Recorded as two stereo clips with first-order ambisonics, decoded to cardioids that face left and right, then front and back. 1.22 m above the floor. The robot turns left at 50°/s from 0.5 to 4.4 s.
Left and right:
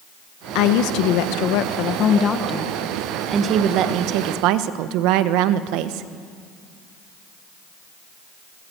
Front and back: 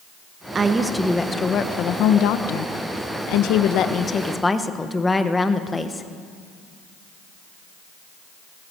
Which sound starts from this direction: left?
A woman speaking, at 0.6 s.